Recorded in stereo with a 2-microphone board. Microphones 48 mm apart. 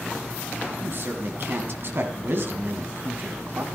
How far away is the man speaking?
About 1.9 m.